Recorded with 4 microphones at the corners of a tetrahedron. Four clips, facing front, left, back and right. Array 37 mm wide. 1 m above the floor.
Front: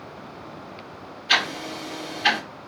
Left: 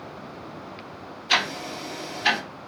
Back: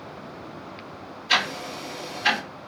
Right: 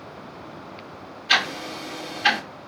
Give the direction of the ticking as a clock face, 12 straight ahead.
2 o'clock.